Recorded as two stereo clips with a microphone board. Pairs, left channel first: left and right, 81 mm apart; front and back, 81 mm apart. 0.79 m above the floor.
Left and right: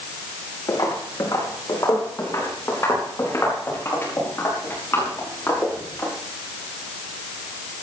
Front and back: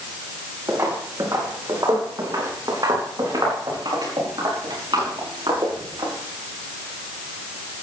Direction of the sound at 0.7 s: 130° left.